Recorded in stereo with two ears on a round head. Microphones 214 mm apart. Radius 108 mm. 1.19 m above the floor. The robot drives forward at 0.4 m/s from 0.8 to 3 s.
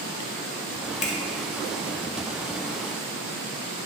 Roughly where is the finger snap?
Left.